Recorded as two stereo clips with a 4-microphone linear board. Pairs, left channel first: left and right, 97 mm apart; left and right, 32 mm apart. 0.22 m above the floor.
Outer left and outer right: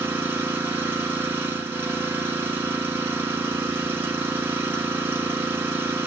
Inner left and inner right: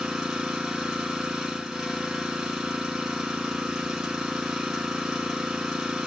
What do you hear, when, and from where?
0.0 s an engine running: 20° right (ahead or behind), 1.0 m